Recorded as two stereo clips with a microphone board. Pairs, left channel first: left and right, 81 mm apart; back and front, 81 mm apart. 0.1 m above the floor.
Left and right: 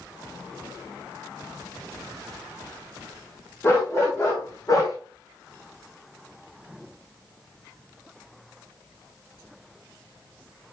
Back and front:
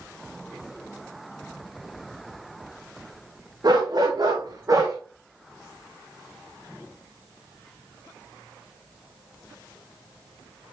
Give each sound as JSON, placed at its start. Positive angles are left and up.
{"t": 3.6, "sound": "a dog barking", "azimuth_deg": 35, "distance_m": 3.5}